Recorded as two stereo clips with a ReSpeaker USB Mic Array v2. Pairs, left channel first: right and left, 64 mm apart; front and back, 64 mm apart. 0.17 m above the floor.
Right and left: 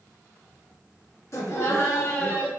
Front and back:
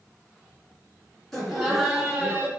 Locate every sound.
1.3 s laughter: 85° right, 1.7 m; by 2.5 s 140° right, 1.4 m